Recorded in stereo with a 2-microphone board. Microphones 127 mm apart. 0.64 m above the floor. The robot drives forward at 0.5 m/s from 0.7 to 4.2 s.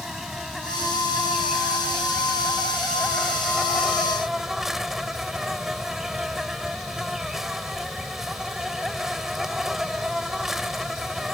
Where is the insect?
Centre (ahead or behind).